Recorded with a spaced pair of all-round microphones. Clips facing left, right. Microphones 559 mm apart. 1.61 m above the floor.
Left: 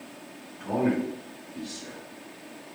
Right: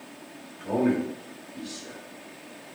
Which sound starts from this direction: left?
A man speaking, at 0.6 s.